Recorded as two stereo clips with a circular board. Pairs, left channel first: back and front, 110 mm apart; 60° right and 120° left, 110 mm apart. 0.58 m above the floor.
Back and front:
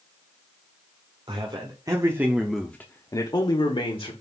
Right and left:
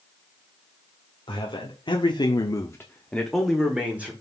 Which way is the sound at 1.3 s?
30° right.